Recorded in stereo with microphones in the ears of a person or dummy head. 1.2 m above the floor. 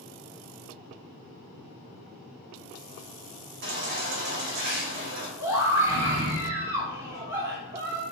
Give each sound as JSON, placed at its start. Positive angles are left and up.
{"t": 3.6, "sound": "a baby crying", "side_deg": -60, "distance_m": 1.9}
{"t": 5.4, "sound": "a scream", "side_deg": -15, "distance_m": 2.5}